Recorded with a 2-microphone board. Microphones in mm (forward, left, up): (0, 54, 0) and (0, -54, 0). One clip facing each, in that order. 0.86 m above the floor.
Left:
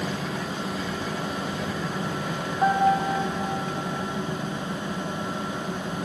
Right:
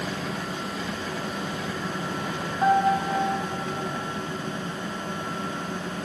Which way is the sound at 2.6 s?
5° left (ahead or behind).